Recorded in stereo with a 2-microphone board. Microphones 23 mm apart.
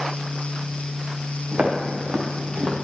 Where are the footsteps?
70° right (ahead or behind), 3 m; by 2.8 s 60° right (ahead or behind), 1.8 m.